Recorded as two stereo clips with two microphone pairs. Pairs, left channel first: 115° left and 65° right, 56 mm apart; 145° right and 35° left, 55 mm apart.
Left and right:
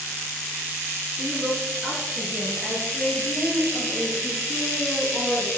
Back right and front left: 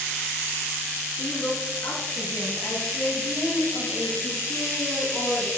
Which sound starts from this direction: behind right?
A woman speaking, at 1.1 s.